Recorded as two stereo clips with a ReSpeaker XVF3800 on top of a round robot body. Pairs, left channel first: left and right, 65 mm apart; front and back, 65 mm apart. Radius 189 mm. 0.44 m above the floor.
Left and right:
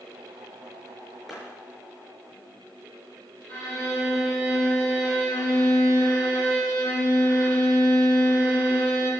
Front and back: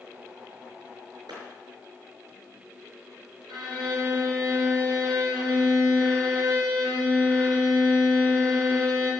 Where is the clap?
Straight behind, 6.5 m.